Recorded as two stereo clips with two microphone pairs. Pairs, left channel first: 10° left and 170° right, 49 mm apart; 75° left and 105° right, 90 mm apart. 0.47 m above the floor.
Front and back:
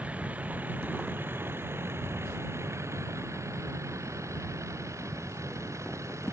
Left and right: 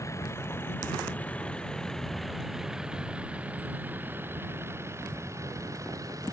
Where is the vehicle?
130° left; by 6.3 s 155° right.